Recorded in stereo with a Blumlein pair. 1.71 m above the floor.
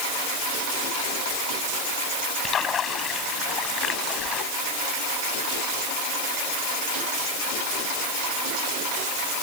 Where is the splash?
25° left.